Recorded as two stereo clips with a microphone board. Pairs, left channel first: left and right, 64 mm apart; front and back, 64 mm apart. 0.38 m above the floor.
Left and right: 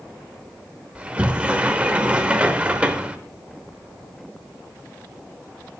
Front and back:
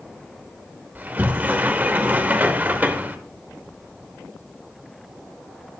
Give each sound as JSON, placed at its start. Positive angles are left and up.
{"t": 0.9, "sound": "a sliding door", "azimuth_deg": -145, "distance_m": 0.8}